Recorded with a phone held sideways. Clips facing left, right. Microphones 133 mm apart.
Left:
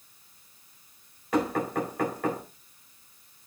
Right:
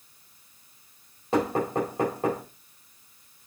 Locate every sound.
1.3 s knocking: 25° right (ahead or behind), 3.5 m